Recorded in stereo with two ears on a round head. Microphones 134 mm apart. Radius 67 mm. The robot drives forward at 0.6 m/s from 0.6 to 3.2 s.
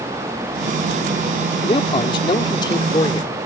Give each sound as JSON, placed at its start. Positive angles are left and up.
{"t": 1.6, "sound": "a man speaking", "side_deg": 40}